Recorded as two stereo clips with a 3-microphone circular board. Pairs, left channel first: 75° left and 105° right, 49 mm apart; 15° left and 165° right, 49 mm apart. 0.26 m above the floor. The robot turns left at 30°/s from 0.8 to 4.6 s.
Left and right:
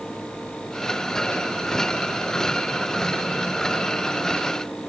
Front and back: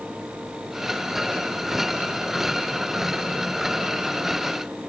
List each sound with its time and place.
Only background noise.